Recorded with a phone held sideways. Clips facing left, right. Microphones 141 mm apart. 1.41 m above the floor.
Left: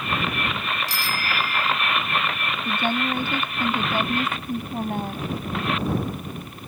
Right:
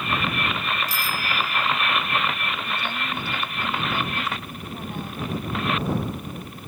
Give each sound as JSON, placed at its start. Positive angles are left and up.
{"t": 0.9, "sound": "a bicycle bell", "side_deg": 80}
{"t": 2.6, "sound": "a woman speaking", "side_deg": 50}